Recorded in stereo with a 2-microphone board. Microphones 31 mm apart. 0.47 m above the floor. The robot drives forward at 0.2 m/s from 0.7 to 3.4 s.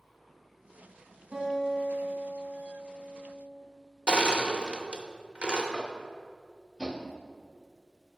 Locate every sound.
1.3 s a guitar: 50° right (ahead or behind), 2.5 m; by 3.6 s 60° right (ahead or behind), 2.5 m
4.1 s crushing: 35° right (ahead or behind), 0.7 m
5.7 s tapping: 30° right (ahead or behind), 0.8 m